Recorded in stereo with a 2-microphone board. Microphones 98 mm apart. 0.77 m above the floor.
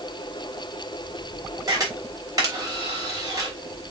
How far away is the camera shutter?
About 3.5 m.